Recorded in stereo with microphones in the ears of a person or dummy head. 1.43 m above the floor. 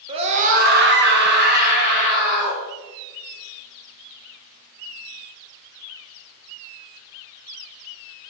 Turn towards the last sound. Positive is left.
turn(degrees=-35)  # may be behind; listen again after turning